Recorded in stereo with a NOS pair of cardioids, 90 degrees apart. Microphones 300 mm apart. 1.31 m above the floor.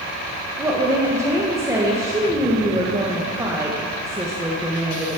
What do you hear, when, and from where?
0.6 s a woman speaking: 10° right, 1.3 m